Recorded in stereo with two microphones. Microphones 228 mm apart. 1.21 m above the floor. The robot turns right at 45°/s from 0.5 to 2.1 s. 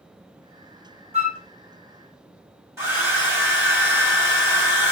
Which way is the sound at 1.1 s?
25° right (ahead or behind).